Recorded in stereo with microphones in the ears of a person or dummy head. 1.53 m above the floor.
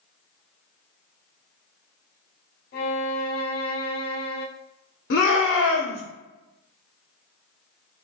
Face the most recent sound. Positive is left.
turn(degrees=55)  # may be behind; listen again after turning